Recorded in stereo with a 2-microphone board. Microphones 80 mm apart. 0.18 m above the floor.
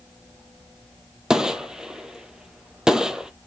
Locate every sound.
1.3 s a gunshot: 5° right (ahead or behind), 0.8 m